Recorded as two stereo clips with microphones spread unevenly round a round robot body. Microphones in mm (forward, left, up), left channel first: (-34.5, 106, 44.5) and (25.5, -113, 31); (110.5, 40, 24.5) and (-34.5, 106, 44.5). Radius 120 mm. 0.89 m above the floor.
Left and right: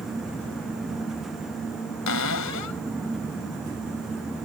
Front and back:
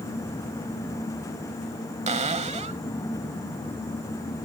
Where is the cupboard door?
110° left.